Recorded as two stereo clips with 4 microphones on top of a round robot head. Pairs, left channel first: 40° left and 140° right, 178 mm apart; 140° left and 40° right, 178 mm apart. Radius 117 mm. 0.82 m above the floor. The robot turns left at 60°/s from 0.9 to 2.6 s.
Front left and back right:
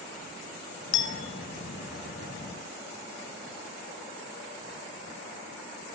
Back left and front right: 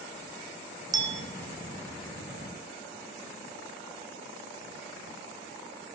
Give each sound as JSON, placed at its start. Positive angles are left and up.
{"t": 0.9, "sound": "a clink", "azimuth_deg": 35, "distance_m": 0.9}